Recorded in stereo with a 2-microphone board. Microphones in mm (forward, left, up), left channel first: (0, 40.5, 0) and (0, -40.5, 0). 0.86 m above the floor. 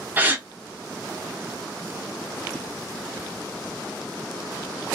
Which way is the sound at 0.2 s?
20° right (ahead or behind).